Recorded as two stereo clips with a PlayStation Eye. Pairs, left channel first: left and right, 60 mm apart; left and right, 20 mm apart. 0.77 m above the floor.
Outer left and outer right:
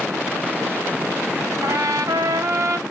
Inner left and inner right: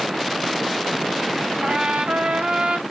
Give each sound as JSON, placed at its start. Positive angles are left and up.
{"t": 1.6, "sound": "a trumpet", "side_deg": -60, "distance_m": 2.5}